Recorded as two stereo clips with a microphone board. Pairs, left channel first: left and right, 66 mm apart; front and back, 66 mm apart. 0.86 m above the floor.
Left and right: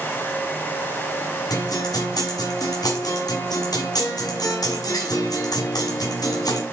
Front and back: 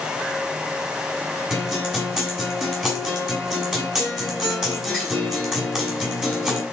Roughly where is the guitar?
Left.